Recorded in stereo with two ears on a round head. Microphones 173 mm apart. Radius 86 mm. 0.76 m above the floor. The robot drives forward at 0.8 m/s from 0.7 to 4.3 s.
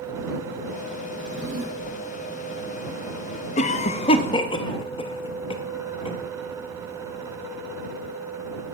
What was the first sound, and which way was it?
A drawer, 65° right (ahead or behind).